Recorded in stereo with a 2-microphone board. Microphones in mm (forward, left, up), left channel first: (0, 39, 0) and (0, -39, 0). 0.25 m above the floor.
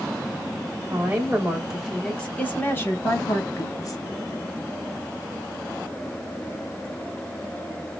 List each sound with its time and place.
0.9 s a woman speaking: 25° right (ahead or behind), 1.1 m; by 4.0 s 50° left (ahead or behind), 1.6 m